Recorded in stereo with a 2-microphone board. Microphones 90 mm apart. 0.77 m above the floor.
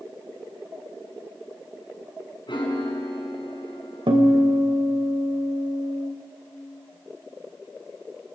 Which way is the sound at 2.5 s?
60° left (ahead or behind).